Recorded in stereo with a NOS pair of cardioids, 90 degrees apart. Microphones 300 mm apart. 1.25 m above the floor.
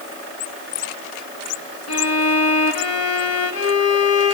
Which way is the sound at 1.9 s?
50° left.